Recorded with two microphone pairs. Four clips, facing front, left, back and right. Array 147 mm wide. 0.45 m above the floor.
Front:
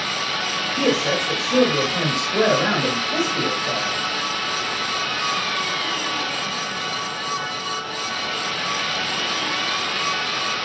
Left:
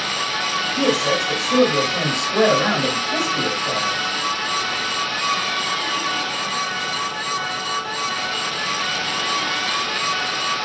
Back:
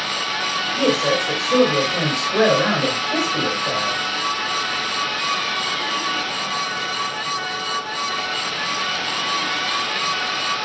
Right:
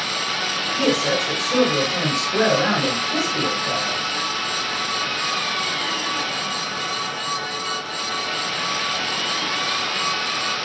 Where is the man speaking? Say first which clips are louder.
Left 1 dB, back 2 dB; 170° left, 2.5 m.